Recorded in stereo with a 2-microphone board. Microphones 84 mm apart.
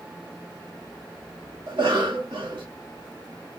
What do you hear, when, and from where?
1.7 s a cough: 45° right (ahead or behind), 0.7 m